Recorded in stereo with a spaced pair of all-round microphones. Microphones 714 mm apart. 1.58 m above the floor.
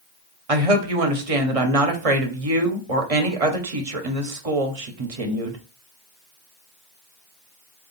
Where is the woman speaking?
50° right (ahead or behind), 1.0 m.